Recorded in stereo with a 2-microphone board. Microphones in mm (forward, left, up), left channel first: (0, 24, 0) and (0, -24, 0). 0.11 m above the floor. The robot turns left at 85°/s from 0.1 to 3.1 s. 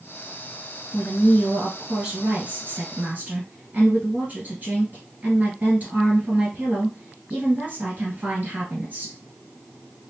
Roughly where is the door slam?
No door slam in this recording.